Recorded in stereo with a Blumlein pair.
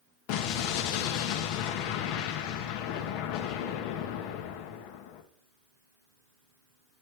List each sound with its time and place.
0.3 s an explosion: 45° left, 0.9 m